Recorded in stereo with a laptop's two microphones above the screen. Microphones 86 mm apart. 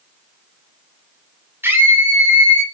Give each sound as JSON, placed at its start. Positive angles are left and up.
{"t": 1.6, "sound": "a scream", "side_deg": -25, "distance_m": 3.5}